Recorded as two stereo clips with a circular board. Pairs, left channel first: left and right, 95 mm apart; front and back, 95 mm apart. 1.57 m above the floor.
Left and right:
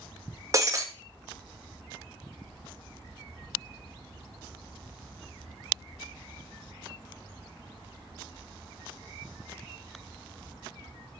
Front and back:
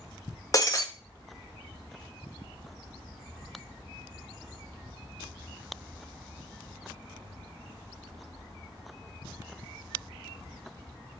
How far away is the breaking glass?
About 1.2 m.